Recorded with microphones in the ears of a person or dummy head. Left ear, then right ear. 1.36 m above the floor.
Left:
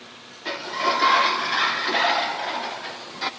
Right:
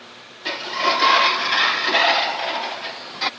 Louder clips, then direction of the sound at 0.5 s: Right 3 dB; 30° right (ahead or behind).